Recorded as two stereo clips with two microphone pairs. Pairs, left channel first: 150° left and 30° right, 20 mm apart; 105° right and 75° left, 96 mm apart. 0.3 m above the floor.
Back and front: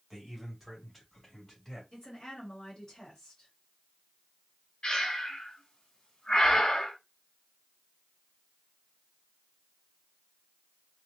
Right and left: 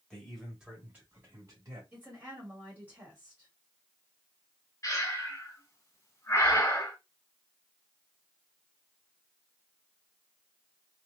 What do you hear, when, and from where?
0.1 s a man speaking: 30° right, 1.5 m; by 1.8 s 85° left, 1.8 m
1.9 s a woman speaking: 110° left, 1.6 m
4.8 s breathing: 165° right, 0.9 m